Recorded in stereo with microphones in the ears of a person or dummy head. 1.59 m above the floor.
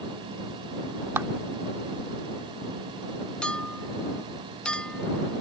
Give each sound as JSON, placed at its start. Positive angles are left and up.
{"t": 1.2, "sound": "a clap", "side_deg": -15}
{"t": 3.4, "sound": "a clink", "side_deg": 5}